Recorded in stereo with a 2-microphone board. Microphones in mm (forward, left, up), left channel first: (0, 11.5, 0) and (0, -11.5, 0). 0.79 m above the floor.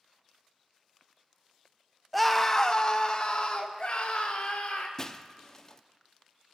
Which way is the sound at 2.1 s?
Centre (ahead or behind).